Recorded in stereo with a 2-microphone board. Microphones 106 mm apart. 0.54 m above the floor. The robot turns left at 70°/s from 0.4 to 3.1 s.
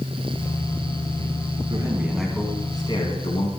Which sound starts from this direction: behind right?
A man speaking, at 1.7 s.